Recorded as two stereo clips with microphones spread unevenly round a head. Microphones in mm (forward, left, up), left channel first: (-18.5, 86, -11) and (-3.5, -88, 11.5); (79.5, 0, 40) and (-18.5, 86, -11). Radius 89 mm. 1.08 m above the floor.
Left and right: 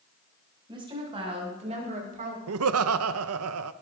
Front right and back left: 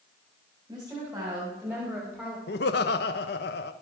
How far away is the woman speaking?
About 6 m.